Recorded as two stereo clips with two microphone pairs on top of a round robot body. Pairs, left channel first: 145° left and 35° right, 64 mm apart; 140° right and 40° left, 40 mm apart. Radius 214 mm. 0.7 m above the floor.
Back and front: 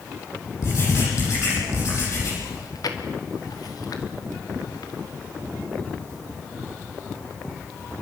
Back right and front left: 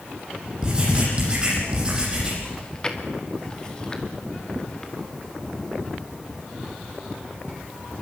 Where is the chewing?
150° left, 2.5 m.